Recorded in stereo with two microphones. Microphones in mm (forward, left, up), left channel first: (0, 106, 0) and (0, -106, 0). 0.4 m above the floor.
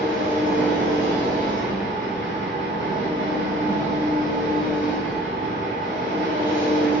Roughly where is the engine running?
Right.